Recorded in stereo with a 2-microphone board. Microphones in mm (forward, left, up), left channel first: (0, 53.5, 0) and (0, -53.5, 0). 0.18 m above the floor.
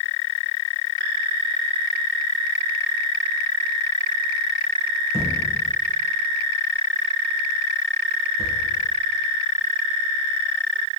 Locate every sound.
5.1 s a thud: 70° right (ahead or behind), 3 m